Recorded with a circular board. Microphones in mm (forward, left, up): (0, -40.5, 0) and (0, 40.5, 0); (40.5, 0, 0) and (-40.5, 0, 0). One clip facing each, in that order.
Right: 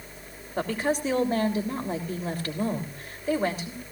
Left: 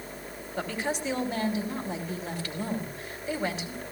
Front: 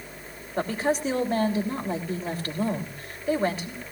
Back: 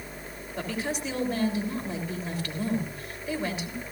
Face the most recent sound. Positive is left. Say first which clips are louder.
# right 5 dB, front 6 dB
turn(degrees=-50)